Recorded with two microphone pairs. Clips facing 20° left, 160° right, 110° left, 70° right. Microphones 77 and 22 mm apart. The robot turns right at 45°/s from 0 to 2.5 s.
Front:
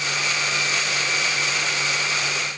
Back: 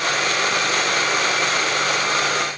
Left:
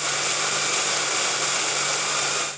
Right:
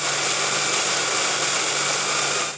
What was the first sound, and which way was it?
Only background noise.